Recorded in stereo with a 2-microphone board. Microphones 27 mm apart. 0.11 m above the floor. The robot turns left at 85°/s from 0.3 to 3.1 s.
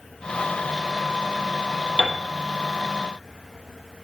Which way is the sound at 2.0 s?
25° right (ahead or behind).